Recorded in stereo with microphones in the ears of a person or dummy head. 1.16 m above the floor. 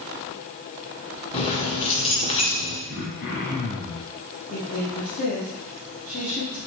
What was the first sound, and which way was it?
Keys jangling, 35° left (ahead or behind).